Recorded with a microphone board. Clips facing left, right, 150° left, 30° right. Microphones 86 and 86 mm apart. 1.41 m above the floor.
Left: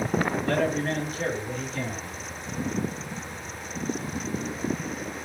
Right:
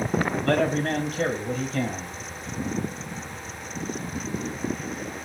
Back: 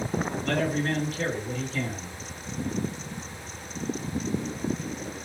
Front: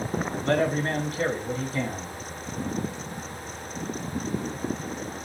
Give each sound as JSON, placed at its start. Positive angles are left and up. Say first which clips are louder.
{"t": 0.4, "sound": "a man speaking", "louder": "right 2 dB, front 4 dB", "azimuth_deg": -95, "distance_m": 1.3}